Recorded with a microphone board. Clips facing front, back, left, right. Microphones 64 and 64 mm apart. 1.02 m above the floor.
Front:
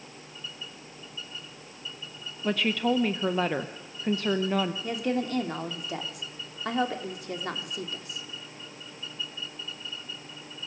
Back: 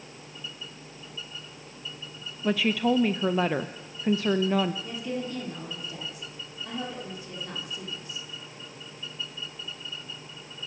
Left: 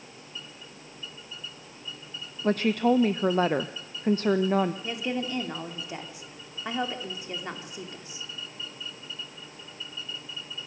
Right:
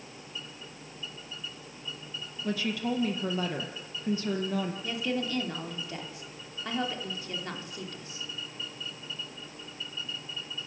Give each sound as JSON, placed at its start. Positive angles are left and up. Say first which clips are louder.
{"t": 2.4, "sound": "a woman speaking", "louder": "back 2 dB, left 8 dB", "azimuth_deg": 95, "distance_m": 0.7}
{"t": 4.8, "sound": "a woman speaking", "louder": "front 4 dB, left 1 dB", "azimuth_deg": 20, "distance_m": 2.5}